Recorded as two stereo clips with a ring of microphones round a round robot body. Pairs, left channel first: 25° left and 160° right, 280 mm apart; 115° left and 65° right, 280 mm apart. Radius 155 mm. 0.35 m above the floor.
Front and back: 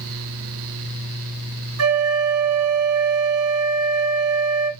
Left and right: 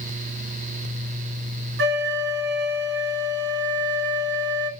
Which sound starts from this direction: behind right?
A flute, at 1.8 s.